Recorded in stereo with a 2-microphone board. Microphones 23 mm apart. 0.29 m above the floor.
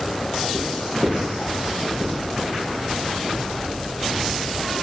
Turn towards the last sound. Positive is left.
turn(degrees=-45)  # may be behind; listen again after turning